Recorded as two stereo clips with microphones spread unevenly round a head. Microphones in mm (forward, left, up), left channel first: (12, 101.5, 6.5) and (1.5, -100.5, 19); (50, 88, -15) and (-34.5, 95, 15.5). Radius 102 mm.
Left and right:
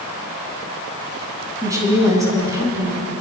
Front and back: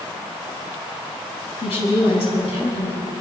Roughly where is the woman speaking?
Ahead.